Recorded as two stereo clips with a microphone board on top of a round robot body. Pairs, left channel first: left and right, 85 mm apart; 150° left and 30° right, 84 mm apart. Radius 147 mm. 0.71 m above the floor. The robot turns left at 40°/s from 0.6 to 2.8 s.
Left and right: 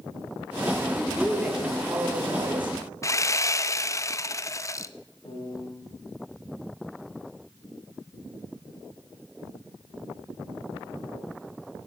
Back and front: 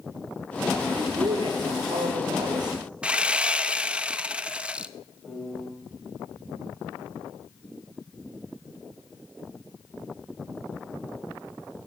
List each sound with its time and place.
0.9 s a woman speaking: 5° left, 3 m; by 2.8 s 70° right, 3 m
3.0 s sawing: 45° left, 0.9 m
5.2 s a piano: 65° left, 4.5 m